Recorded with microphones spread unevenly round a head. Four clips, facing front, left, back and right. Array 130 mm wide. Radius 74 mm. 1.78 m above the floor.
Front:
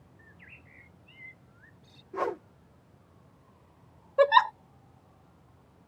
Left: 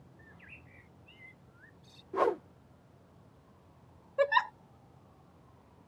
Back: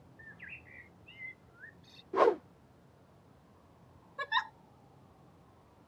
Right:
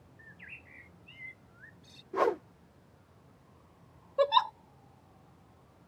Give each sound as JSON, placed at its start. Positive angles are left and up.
{"t": 0.2, "sound": "a bird", "azimuth_deg": -165}
{"t": 2.1, "sound": "a whoosh", "azimuth_deg": -170}
{"t": 4.2, "sound": "a giggle", "azimuth_deg": -10}